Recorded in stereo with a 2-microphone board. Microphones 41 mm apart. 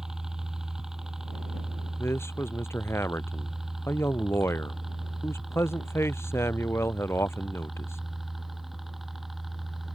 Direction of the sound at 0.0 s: 10° right (ahead or behind).